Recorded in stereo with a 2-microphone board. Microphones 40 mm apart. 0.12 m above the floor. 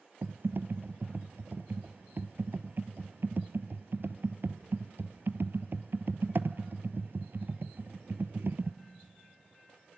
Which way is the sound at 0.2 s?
65° right (ahead or behind).